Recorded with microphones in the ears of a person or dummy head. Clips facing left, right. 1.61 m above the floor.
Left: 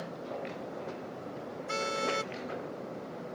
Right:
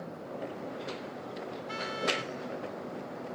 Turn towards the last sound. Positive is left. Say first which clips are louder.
# left 2 dB
turn(degrees=55)  # may be behind; listen again after turning